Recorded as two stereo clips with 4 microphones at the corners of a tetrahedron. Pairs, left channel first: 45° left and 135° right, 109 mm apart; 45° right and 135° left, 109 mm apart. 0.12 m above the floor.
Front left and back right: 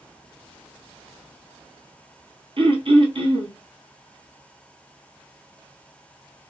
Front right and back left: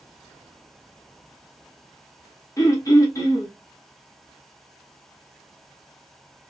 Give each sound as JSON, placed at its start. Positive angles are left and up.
{"t": 2.6, "sound": "throat clearing", "azimuth_deg": -100, "distance_m": 1.0}